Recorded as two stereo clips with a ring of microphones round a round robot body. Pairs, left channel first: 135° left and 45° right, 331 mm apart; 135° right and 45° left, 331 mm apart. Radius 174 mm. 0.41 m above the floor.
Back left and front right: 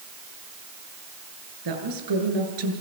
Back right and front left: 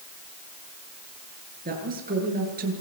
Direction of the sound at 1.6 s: 20° right.